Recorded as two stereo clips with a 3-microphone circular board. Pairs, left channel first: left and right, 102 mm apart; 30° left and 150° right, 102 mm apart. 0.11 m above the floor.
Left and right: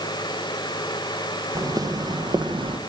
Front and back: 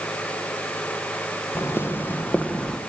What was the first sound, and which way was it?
Footsteps, 35° right.